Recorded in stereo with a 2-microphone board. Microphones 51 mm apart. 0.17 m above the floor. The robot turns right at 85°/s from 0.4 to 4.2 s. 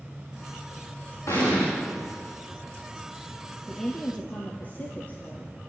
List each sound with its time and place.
1.3 s an explosion: 75° left, 9.5 m; by 1.7 s 105° left, 9.5 m
3.7 s a woman speaking: 10° right, 3.5 m; by 5.5 s 35° left, 3.5 m